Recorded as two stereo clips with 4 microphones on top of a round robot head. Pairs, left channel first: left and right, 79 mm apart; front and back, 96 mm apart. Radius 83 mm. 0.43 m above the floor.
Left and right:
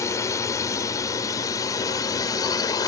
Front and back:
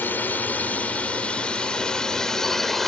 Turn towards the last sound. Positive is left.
turn(degrees=85)